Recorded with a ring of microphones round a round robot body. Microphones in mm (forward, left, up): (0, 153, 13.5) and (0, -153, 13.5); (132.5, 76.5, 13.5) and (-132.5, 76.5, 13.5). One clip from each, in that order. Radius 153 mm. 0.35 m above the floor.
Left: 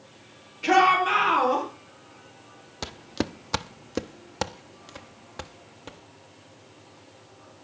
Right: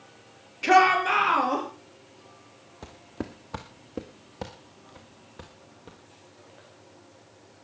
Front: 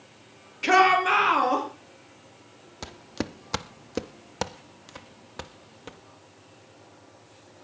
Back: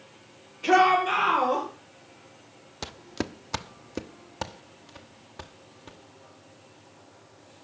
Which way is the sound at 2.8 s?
110° left.